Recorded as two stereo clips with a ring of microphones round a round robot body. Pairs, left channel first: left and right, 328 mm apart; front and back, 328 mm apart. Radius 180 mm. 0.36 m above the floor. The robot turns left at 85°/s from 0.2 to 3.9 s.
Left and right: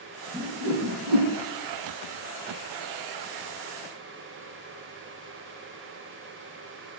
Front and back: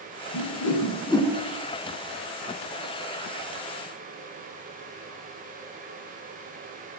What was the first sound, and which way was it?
A whoosh, 10° right.